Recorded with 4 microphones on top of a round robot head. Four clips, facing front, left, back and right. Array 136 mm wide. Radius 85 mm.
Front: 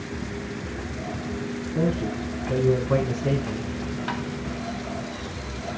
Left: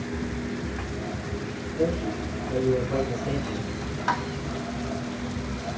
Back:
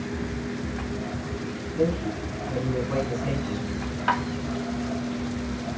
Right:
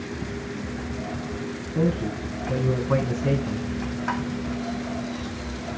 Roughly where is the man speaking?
Right.